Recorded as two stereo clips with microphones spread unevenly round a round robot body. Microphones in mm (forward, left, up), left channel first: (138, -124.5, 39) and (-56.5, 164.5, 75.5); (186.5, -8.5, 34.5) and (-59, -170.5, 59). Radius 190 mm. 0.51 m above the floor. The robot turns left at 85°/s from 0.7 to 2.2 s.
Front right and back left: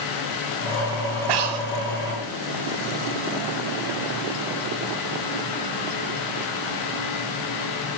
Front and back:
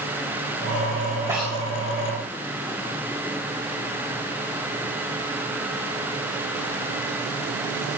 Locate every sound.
1.3 s breathing: 130° left, 1.9 m; by 1.7 s 100° left, 1.9 m